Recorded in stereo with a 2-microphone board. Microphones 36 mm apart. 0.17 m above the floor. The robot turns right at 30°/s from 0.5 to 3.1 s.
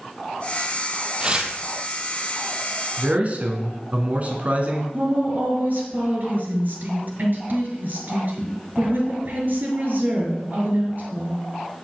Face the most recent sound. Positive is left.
turn(degrees=-55)  # may be behind; listen again after turning